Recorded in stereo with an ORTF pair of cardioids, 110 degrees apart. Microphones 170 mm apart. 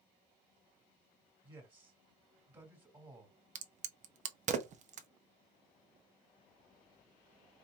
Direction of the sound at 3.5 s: 45° right.